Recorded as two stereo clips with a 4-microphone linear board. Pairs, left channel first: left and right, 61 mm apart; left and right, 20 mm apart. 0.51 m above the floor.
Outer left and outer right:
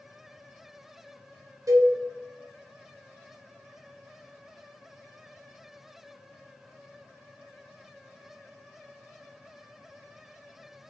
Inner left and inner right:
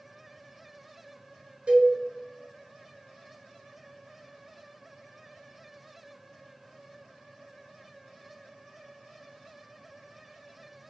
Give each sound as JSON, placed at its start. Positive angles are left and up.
{"t": 1.7, "sound": "a cowbell", "side_deg": -65, "distance_m": 0.5}